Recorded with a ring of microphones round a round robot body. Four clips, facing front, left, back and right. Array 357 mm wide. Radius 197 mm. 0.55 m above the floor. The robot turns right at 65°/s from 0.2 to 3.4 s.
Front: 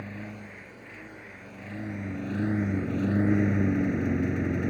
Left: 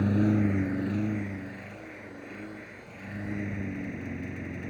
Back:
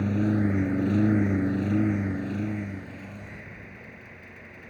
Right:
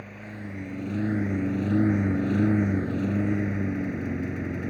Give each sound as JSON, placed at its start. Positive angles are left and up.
{"t": 0.0, "sound": "a lawn mower", "azimuth_deg": 130}